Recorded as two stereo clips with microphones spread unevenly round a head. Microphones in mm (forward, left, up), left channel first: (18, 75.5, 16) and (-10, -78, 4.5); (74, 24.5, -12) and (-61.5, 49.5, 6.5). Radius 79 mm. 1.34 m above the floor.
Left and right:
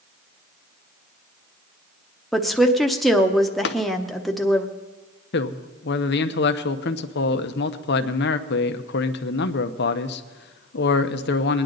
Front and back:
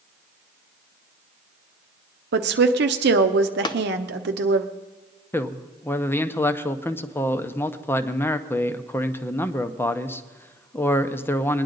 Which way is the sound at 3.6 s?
50° left.